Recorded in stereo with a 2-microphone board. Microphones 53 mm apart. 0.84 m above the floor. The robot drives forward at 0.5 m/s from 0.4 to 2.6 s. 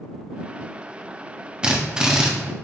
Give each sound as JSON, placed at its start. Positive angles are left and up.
{"t": 1.6, "sound": "a drill", "side_deg": -15, "distance_m": 1.1}